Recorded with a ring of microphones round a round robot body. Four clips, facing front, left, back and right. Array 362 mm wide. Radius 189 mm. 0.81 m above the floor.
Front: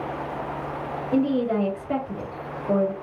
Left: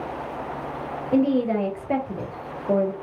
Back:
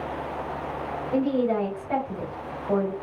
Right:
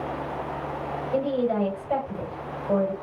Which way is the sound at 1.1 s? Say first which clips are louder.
Left 4 dB, front 1 dB; 60° left.